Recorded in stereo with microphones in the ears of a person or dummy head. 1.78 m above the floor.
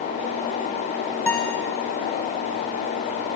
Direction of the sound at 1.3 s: 10° left (ahead or behind).